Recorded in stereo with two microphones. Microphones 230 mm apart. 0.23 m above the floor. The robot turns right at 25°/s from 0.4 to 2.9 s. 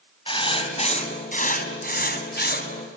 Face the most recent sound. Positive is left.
turn(degrees=95)